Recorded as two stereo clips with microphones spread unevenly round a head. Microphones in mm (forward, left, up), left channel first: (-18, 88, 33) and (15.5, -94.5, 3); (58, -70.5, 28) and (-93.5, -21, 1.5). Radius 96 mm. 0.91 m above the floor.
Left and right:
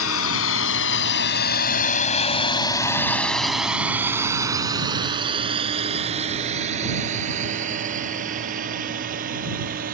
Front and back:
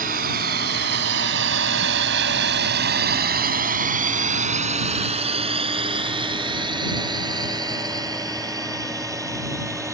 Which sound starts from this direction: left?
A drone, at 0.0 s.